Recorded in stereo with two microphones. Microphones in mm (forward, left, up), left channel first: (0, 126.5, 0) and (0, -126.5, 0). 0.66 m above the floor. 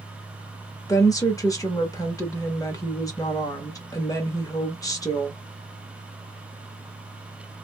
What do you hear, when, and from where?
0.9 s a woman speaking: 15° left (ahead or behind), 1.1 m